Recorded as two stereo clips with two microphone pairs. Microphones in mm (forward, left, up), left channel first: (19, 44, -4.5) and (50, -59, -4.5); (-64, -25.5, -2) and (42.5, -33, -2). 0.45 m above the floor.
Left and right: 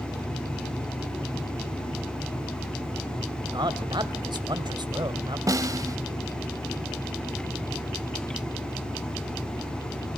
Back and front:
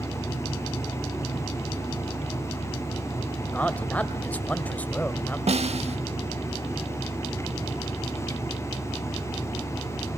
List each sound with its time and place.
3.5 s a man speaking: 110° right, 1.7 m
5.5 s a snare drum: 15° right, 0.6 m